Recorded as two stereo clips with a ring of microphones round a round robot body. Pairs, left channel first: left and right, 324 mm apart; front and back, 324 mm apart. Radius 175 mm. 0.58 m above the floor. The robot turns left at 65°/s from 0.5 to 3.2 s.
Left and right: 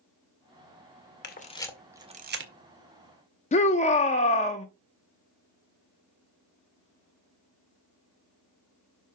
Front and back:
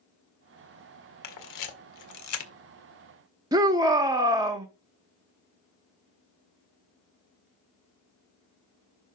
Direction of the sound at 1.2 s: 35° left.